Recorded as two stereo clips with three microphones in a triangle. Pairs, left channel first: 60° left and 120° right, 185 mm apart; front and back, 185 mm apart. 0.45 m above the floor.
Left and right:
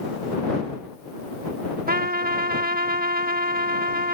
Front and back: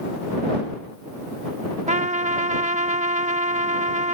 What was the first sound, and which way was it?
A trumpet, 140° right.